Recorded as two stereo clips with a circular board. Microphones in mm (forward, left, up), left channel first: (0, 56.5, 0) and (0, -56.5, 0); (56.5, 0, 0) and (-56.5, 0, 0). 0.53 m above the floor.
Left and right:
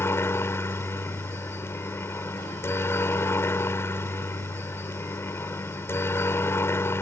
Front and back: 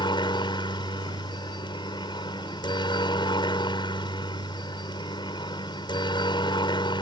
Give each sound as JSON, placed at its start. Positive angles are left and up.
{"t": 0.0, "sound": "a helicopter", "azimuth_deg": 30}